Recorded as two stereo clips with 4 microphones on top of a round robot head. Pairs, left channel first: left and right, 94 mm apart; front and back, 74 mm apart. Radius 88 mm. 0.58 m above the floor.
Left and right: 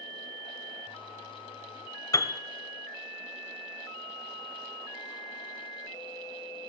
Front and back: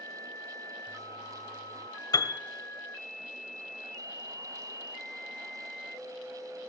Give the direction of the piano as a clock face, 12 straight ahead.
11 o'clock.